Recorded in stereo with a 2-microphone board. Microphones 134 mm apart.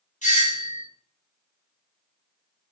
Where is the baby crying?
No baby crying in this recording.